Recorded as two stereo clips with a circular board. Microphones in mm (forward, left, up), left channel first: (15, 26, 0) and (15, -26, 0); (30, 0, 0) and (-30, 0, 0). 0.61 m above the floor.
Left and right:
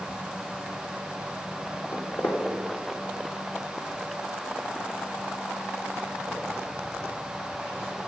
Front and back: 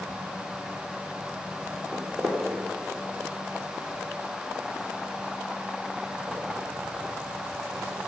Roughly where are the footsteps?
Behind left.